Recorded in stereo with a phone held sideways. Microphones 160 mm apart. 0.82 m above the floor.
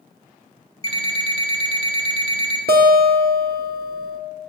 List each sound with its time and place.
0.8 s an alarm clock: 35° right (ahead or behind), 1.9 m
2.7 s a guitar: 80° right, 1.2 m